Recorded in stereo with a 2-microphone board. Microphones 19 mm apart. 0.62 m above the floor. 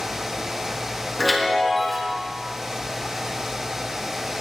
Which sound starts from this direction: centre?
A chime, at 1.2 s.